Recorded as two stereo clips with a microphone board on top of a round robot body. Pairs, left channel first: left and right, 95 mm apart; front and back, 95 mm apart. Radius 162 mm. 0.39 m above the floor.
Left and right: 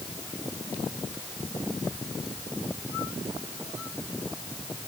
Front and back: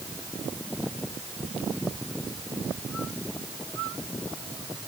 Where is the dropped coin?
I don't hear a dropped coin.